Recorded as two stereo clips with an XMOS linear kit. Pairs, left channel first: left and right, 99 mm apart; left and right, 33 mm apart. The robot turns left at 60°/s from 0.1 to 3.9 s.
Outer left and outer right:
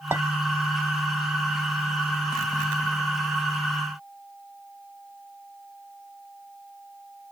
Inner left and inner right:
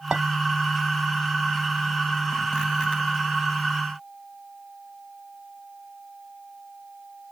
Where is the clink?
25° right (ahead or behind), 0.6 m.